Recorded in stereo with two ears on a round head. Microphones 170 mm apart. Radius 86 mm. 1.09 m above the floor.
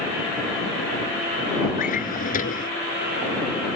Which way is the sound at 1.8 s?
50° left (ahead or behind).